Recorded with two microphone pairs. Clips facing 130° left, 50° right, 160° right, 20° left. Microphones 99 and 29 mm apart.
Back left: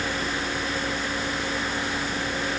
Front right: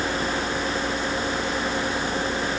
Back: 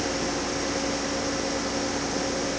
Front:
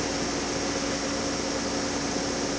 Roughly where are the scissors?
No scissors in this recording.